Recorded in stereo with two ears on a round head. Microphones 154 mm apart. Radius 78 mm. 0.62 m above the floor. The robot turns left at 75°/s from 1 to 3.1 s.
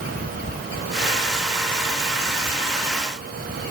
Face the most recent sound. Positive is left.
No sound to turn to.